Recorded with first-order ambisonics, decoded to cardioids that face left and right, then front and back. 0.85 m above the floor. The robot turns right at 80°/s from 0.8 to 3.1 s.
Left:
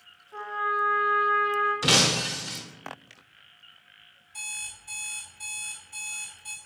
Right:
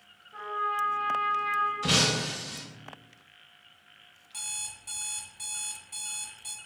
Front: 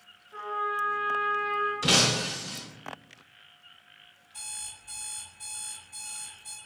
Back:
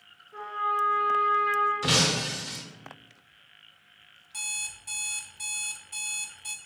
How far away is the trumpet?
About 1.8 m.